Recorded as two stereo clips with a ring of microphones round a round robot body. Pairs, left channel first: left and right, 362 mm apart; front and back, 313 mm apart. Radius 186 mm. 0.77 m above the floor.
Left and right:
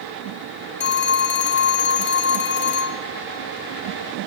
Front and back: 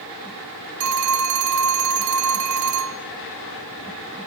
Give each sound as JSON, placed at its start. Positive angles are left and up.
{"t": 0.8, "sound": "a phone ringing", "azimuth_deg": 150, "distance_m": 1.3}